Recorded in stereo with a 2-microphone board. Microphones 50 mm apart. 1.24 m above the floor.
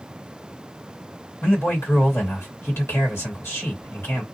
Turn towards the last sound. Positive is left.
turn(degrees=60)  # may be behind; listen again after turning